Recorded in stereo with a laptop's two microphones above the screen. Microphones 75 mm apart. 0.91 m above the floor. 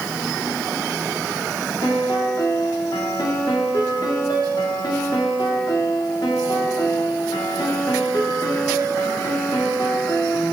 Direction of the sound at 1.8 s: 75° left (ahead or behind).